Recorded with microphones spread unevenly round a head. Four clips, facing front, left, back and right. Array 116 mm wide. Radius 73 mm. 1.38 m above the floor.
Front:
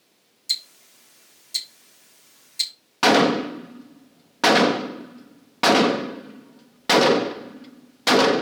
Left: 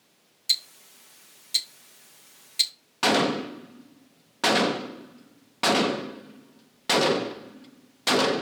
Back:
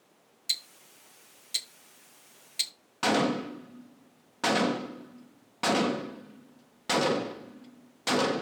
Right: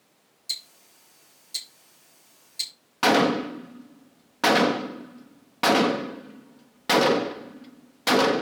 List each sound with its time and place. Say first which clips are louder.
0.5 s ticking: left 7 dB, front 4 dB; 110° left, 1.7 m
3.0 s a gunshot: right 3 dB, front 9 dB; straight ahead, 0.6 m